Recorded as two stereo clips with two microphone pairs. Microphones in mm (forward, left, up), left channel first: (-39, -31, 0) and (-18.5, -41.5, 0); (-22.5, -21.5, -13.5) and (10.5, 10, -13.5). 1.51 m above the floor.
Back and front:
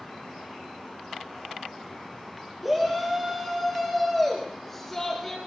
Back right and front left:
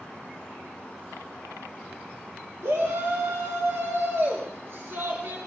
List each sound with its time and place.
2.6 s a shout: 55° left, 3.5 m; by 5.4 s 80° left, 4 m